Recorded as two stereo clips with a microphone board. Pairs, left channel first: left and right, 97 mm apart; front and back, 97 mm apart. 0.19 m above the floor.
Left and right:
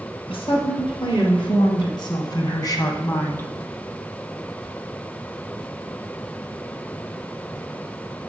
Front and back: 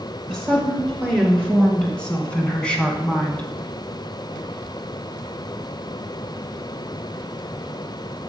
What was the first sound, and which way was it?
A woman speaking, 80° left.